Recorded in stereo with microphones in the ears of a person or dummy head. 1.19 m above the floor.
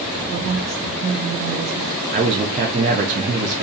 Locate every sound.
0.3 s a woman speaking: 55° right (ahead or behind), 0.7 m
2.1 s a man speaking: 35° right (ahead or behind), 0.5 m